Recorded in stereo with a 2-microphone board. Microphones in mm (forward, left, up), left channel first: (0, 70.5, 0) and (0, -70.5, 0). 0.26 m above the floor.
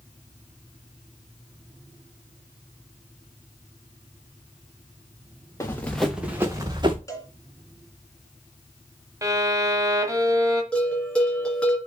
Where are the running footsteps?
20° left (ahead or behind), 1.8 m; by 7.0 s 35° right (ahead or behind), 2.5 m.